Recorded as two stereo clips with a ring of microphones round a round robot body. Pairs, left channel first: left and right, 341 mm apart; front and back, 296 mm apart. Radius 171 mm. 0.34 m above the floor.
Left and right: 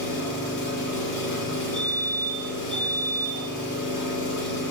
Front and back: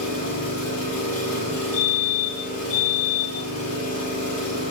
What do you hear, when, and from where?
0.0 s an engine running: 30° left, 4.5 m
1.7 s a fire alarm: 5° left, 2.5 m